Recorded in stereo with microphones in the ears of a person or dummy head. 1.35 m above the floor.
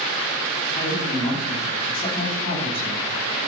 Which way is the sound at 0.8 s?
25° left (ahead or behind).